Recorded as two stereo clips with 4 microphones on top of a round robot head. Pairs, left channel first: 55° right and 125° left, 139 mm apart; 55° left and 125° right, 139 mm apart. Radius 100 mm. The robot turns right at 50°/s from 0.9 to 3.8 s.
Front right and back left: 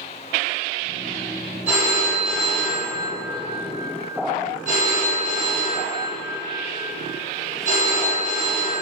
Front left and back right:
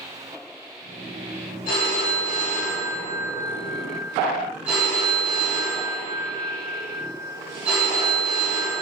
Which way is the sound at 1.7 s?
50° left.